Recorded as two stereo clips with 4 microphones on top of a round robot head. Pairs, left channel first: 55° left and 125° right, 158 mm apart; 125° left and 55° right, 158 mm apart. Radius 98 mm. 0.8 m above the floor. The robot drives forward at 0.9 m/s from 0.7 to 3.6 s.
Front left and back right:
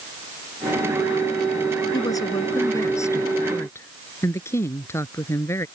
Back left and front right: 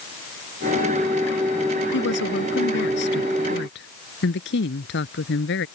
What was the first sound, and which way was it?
A woman speaking, 125° left.